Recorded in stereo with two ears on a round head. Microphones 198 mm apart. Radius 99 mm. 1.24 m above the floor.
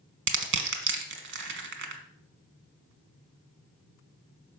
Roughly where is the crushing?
Right.